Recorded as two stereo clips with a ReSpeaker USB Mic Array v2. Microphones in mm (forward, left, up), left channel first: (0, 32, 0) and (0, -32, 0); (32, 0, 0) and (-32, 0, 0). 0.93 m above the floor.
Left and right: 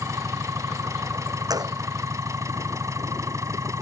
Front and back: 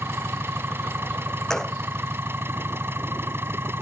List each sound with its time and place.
0.0 s an engine running: 125° right
1.5 s a gunshot: 80° right